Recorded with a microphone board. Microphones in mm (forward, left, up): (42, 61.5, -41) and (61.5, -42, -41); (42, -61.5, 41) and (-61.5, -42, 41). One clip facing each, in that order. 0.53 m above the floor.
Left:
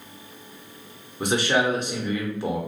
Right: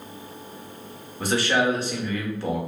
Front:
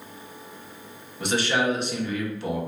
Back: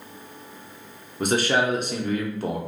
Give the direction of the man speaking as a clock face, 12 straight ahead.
7 o'clock.